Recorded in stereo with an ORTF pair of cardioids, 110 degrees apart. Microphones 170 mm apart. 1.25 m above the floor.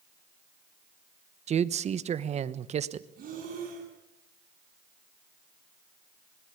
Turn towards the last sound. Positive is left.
turn(degrees=-55)